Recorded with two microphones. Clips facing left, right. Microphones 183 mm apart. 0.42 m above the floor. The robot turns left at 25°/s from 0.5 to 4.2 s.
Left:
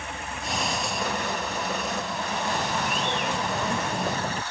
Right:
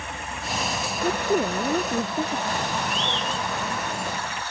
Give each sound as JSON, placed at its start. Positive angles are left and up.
{"t": 1.0, "sound": "a woman speaking", "azimuth_deg": -65}
{"t": 2.5, "sound": "a bird", "azimuth_deg": -175}